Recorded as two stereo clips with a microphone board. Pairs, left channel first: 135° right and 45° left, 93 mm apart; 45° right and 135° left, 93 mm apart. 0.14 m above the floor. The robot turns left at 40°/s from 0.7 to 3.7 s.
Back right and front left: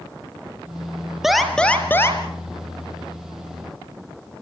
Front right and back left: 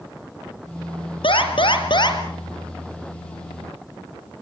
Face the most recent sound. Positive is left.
turn(degrees=-140)